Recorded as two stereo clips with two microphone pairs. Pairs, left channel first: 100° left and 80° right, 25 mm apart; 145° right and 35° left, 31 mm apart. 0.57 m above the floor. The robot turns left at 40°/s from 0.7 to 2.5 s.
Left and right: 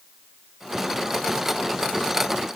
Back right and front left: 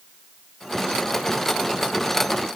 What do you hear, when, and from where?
Only background noise.